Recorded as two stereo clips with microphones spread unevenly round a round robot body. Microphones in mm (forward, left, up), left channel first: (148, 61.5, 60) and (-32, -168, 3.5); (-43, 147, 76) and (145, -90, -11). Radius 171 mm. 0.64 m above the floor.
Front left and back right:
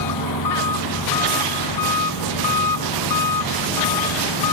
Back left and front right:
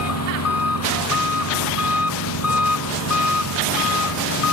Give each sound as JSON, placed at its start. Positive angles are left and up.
{"t": 0.0, "sound": "an engine running", "azimuth_deg": 90}